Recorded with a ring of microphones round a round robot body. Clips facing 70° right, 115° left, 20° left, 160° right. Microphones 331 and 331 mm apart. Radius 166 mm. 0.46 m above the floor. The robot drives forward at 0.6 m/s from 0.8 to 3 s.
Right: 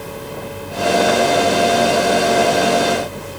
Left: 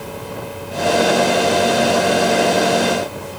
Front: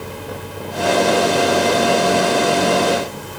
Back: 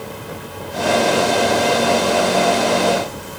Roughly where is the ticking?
I don't hear ticking.